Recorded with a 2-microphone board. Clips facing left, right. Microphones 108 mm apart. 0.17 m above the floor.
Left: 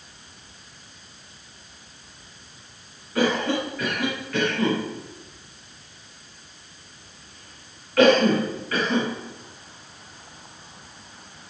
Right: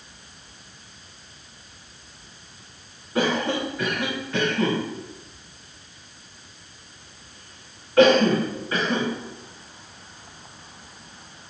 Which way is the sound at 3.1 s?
20° right (ahead or behind).